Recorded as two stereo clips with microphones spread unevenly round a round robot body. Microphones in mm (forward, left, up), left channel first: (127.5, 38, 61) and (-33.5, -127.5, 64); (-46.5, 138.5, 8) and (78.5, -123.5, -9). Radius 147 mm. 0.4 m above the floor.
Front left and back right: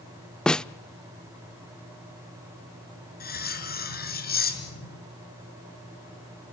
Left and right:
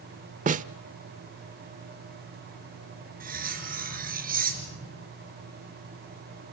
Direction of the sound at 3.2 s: 5° right.